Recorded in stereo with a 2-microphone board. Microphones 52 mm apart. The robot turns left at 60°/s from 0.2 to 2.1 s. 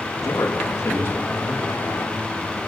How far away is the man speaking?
About 3 m.